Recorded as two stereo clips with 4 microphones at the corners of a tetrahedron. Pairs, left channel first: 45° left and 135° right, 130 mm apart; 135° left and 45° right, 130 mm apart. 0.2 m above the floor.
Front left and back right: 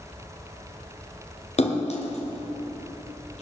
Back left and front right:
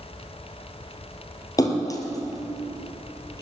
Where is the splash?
75° left, 2.5 m.